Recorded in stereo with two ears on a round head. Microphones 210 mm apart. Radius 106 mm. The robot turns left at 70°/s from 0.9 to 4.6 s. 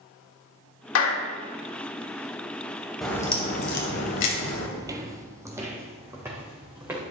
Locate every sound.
0.9 s a clap: 65° left (ahead or behind), 1.6 m; by 1.3 s 60° left (ahead or behind), 1.6 m
3.0 s a crack: straight behind, 2.5 m; by 4.7 s 70° left, 2.5 m
4.8 s footsteps: 15° right (ahead or behind), 0.9 m; by 7.0 s 10° right (ahead or behind), 3 m